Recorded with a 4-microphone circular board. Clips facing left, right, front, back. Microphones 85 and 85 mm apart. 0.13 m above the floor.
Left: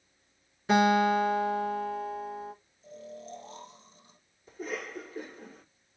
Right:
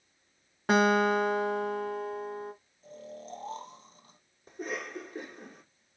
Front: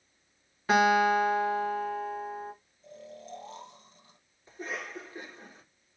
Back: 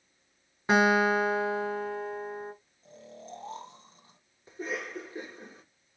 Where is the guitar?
110° right, 3 m.